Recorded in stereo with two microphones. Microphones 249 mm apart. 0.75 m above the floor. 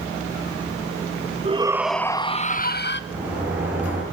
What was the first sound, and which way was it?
A shout, 25° right (ahead or behind).